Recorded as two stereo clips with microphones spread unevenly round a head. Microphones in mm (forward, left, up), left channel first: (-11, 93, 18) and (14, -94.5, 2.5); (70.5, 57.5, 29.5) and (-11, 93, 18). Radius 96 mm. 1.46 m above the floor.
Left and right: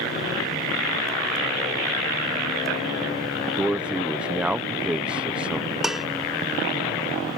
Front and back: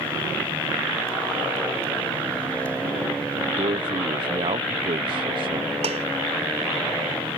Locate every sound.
3.6 s a man speaking: 165° right
5.8 s dishes clattering: 170° right